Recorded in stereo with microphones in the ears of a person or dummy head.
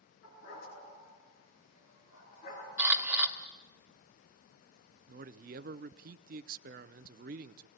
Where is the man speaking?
50° right (ahead or behind), 0.6 m.